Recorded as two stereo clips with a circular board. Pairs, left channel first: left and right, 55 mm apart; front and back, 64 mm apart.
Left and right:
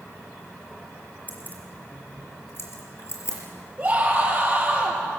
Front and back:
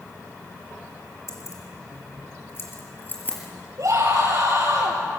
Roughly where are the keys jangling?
Ahead left.